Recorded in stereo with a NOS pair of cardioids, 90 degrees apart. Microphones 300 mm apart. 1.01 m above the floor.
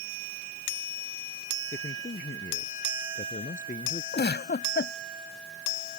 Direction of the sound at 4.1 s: 30° left.